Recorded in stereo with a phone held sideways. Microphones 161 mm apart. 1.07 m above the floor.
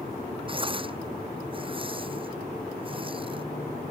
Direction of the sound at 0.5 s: 35° right (ahead or behind).